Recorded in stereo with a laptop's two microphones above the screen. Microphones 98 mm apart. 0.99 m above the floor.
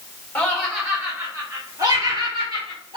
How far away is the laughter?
About 1.0 m.